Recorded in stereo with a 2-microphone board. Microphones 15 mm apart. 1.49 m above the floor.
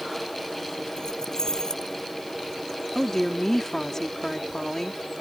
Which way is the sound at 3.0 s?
35° left (ahead or behind).